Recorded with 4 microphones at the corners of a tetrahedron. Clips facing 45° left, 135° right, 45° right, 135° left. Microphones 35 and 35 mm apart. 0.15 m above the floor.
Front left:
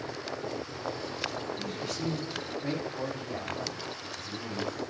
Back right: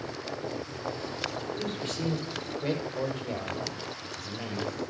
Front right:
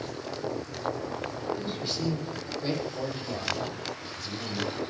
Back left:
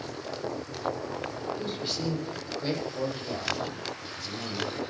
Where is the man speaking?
155° right, 6 m; by 4.8 s 145° right, 4.5 m.